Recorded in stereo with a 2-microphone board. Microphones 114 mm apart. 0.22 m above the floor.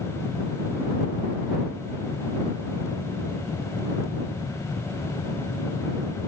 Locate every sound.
Only background noise.